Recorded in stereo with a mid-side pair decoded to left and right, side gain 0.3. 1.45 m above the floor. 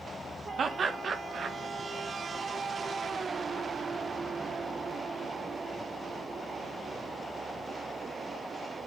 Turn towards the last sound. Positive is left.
turn(degrees=-60)